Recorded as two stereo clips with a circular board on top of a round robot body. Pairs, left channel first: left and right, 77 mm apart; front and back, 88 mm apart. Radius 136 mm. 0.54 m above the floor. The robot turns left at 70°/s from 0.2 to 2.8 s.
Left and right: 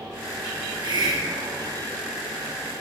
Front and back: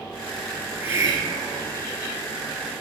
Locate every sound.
0.6 s a hiss: 95° right, 2.5 m; by 1.8 s 175° right, 2.5 m